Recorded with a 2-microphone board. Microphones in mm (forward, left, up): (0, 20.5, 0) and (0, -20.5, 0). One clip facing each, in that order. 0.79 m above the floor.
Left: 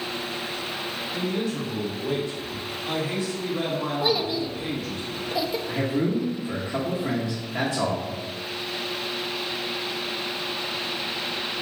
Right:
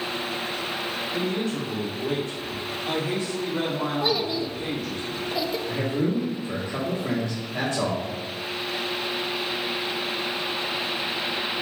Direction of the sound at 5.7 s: 5° left (ahead or behind).